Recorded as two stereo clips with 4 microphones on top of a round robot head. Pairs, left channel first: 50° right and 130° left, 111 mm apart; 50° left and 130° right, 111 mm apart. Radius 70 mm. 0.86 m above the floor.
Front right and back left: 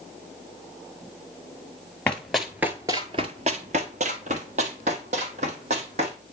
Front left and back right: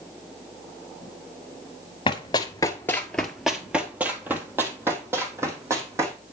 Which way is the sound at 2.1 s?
25° left.